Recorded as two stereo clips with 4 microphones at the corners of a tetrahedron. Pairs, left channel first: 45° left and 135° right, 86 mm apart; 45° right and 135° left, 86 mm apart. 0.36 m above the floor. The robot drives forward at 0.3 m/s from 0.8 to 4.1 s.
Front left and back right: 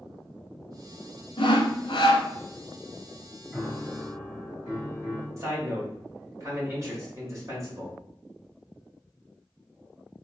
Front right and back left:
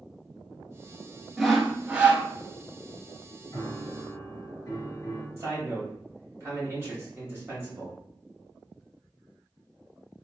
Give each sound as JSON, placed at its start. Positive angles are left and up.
{"t": 1.4, "sound": "sawing", "azimuth_deg": 50, "distance_m": 0.8}
{"t": 3.5, "sound": "a piano", "azimuth_deg": -70, "distance_m": 1.6}
{"t": 5.4, "sound": "a man speaking", "azimuth_deg": -175, "distance_m": 1.9}